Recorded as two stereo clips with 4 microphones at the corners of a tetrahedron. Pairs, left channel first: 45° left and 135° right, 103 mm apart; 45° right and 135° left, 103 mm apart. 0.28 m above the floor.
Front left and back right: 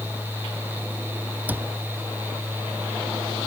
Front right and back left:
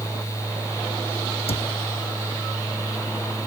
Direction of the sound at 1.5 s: 60° right.